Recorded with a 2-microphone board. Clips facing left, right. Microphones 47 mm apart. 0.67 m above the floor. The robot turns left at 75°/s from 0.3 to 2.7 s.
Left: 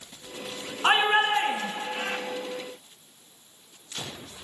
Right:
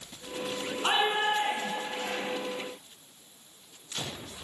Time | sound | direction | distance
0.8 | a shout | 145° left | 6 m